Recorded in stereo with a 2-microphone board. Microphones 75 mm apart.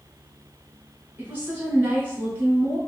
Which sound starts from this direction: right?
A woman speaking, at 1.2 s.